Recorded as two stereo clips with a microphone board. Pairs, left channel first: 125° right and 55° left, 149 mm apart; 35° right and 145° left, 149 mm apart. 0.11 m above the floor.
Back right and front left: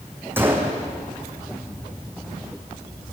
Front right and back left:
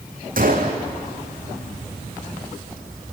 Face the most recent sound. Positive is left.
turn(degrees=130)